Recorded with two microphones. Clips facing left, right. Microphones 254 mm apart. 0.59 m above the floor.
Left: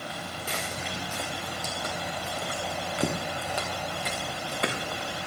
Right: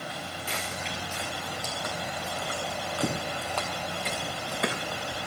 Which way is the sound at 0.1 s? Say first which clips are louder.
Left 1 dB; 50° left (ahead or behind).